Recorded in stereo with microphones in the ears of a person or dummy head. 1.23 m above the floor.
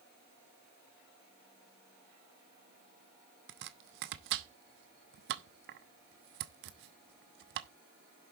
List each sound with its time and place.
3.5 s chopping: 60° right (ahead or behind), 1.0 m